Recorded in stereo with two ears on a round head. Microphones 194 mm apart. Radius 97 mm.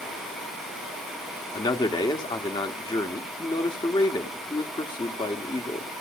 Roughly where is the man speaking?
Centre.